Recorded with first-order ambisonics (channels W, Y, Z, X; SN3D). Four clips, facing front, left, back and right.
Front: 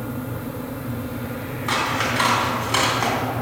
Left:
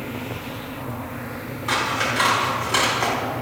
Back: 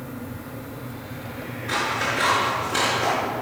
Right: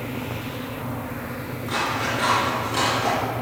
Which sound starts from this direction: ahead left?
Scissors, at 1.7 s.